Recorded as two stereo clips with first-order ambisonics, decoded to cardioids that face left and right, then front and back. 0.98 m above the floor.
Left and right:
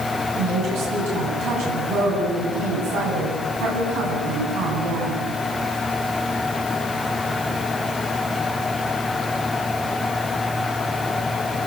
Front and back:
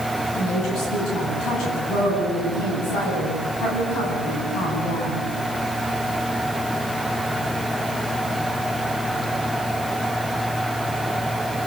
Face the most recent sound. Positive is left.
turn(degrees=-50)